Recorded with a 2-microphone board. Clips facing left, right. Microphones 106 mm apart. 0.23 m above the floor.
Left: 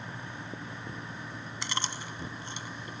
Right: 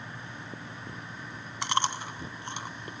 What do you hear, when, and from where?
1.6 s chewing: 55° right (ahead or behind), 0.6 m